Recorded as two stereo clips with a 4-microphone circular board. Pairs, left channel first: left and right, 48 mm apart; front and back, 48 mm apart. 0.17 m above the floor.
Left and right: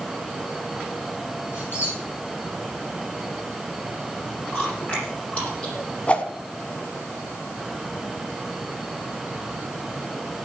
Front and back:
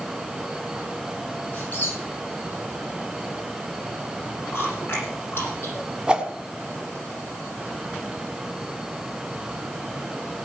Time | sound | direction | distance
1.5 | a squeak | 50° left | 8 m
4.5 | chewing | 30° left | 8.5 m
6.1 | a whoosh | 125° left | 1.5 m